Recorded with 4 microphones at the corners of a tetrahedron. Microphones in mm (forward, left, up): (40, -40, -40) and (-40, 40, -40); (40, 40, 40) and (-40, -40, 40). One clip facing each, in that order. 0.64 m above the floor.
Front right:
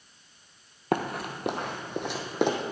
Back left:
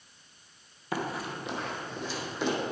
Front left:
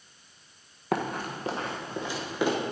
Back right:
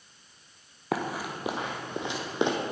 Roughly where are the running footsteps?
Ahead right.